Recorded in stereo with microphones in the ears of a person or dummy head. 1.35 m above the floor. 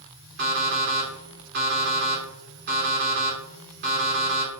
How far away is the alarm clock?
About 2.0 m.